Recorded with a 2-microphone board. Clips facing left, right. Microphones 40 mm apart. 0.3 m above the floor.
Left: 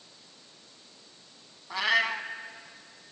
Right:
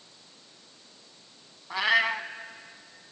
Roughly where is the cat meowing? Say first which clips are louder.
Right 2 dB; centre.